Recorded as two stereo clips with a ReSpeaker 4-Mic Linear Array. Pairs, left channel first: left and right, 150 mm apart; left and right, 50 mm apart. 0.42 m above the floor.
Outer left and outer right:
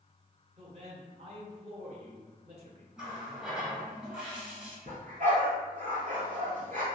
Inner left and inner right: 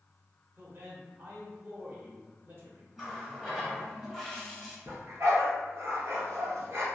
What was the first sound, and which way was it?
A man speaking, 45° right (ahead or behind).